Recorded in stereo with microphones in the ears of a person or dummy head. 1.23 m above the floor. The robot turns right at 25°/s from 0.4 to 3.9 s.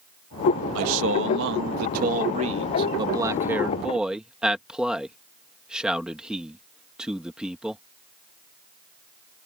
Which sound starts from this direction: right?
A man speaking, at 0.8 s.